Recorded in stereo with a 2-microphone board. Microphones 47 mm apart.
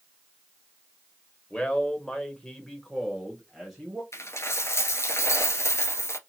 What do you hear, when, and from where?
1.5 s a man speaking: 20° left (ahead or behind), 0.9 m; by 4.0 s centre (ahead or behind), 1.4 m
4.1 s a dropped coin: 80° left, 0.9 m